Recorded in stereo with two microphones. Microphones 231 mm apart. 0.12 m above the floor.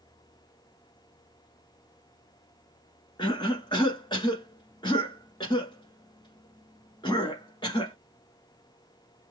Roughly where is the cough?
Centre.